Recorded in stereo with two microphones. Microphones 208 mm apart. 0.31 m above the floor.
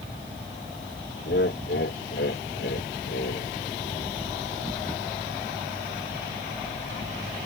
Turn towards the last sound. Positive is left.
turn(degrees=55)  # may be behind; listen again after turning